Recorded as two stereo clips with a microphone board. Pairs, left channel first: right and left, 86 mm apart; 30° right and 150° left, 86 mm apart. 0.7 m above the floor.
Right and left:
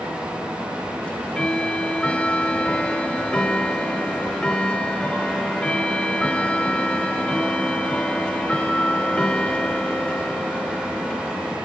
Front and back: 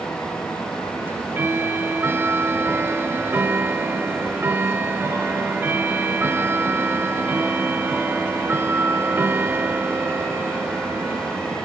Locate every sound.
1.0 s ticking: 160° right